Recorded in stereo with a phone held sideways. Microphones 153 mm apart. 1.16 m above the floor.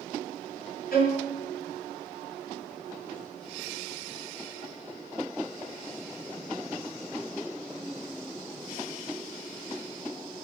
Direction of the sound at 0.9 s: 75° left (ahead or behind).